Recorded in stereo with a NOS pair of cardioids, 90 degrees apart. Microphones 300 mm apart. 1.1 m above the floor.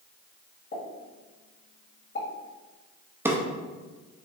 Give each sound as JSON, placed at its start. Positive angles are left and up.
{"t": 0.7, "sound": "a pop", "azimuth_deg": 35, "distance_m": 2.0}
{"t": 3.2, "sound": "a drawer", "azimuth_deg": -5, "distance_m": 0.7}